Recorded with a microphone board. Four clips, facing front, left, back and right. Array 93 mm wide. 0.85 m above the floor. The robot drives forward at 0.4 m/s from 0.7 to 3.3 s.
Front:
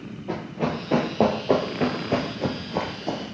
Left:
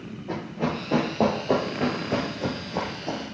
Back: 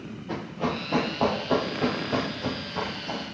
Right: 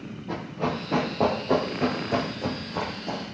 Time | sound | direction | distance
0.3 | running footsteps | 25° left | 4.5 m